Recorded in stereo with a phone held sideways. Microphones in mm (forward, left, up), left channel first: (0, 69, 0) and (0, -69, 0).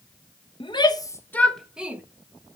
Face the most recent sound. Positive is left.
turn(degrees=-15)  # may be behind; listen again after turning